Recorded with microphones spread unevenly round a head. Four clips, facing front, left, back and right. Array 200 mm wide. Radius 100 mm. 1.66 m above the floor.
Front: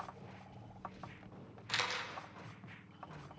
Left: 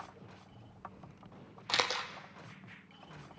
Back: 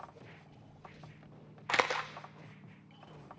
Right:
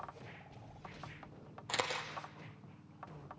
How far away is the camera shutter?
About 0.7 m.